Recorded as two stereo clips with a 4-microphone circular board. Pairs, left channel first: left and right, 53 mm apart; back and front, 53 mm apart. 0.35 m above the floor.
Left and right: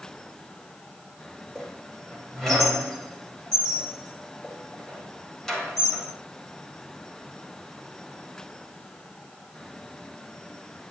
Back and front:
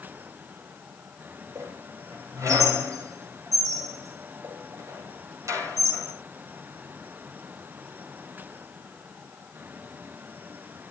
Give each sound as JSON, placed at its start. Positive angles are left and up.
{"t": 1.6, "sound": "a squeak", "azimuth_deg": 10, "distance_m": 9.5}